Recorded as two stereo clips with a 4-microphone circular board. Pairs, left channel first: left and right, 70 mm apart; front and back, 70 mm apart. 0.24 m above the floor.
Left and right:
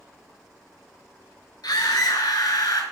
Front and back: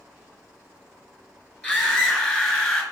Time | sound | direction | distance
1.6 | a scream | 95° left | 4 m